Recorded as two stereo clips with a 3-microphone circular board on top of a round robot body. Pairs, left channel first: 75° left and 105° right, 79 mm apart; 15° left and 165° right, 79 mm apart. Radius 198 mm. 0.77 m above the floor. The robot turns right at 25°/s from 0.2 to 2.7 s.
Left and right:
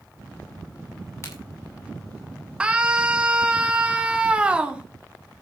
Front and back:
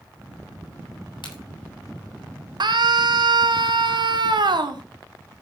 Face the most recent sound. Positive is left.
turn(degrees=180)